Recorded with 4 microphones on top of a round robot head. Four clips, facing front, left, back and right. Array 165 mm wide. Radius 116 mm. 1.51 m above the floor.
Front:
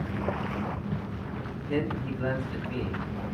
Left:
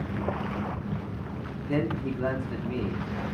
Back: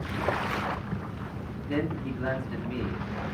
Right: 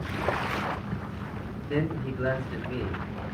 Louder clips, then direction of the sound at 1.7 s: Left 1 dB, even; 115° left.